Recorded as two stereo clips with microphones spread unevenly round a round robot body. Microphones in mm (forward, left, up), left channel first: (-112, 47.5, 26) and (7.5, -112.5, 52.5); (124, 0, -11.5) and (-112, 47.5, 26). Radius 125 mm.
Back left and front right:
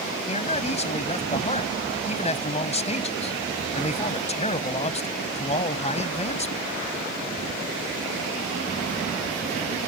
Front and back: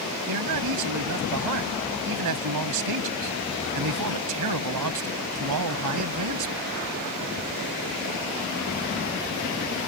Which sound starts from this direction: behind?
A man speaking, at 0.3 s.